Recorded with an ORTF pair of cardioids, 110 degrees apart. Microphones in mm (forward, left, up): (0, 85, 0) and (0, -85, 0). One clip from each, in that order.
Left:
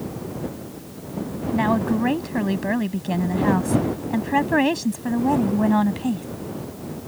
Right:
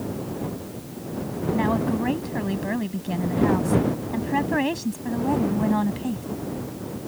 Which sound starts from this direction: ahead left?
A woman speaking, at 1.5 s.